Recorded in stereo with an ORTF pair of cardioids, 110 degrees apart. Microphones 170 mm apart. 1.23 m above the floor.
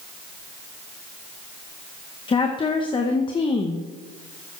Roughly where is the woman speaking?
Ahead left.